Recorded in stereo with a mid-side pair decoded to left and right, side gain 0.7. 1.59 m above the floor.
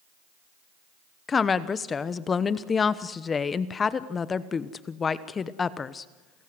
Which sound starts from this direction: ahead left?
A woman speaking, at 1.3 s.